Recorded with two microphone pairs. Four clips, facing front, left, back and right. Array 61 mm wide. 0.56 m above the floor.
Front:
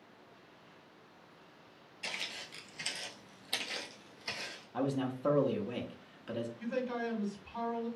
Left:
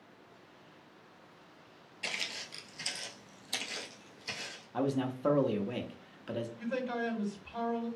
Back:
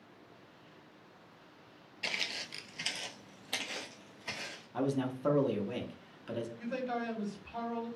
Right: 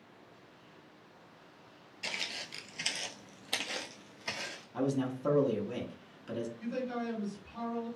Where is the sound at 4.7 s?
85° left, 0.6 m.